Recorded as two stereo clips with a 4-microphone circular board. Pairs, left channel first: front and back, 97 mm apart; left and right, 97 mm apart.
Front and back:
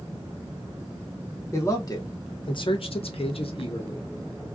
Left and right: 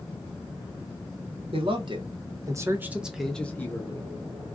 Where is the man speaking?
60° right, 1.0 m; by 4.1 s 35° left, 0.8 m.